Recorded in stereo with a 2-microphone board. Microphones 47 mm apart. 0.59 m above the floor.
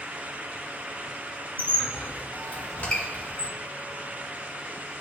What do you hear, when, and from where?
1.6 s a squeak: 30° left (ahead or behind), 1.2 m